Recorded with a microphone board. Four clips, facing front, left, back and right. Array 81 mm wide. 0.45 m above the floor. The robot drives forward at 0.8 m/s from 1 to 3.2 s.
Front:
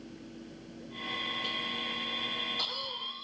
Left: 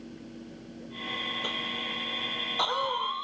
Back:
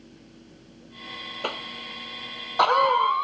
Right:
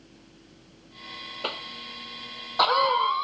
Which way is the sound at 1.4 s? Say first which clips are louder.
Left 1 dB, back 4 dB; 160° right.